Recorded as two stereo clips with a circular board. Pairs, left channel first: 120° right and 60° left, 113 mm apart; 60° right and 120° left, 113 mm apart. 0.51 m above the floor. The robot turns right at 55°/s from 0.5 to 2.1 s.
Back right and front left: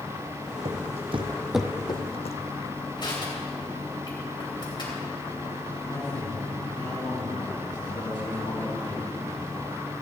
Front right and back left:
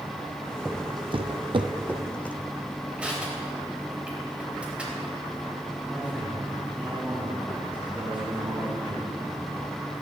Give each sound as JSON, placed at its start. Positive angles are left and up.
{"t": 0.7, "sound": "footsteps", "azimuth_deg": 40, "distance_m": 1.4}
{"t": 3.0, "sound": "crushing", "azimuth_deg": -160, "distance_m": 3.0}
{"t": 5.9, "sound": "a man speaking", "azimuth_deg": -165, "distance_m": 4.0}